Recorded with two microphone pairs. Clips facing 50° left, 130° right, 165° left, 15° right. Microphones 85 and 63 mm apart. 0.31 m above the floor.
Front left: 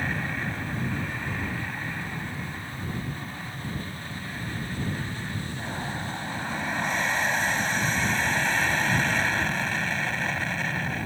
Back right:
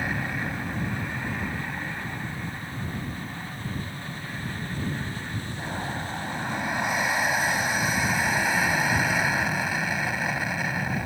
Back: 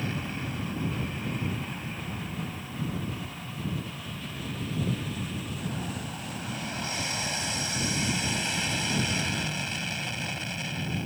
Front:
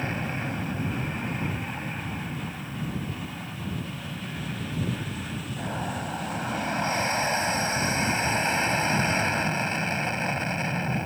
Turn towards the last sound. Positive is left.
turn(degrees=-55)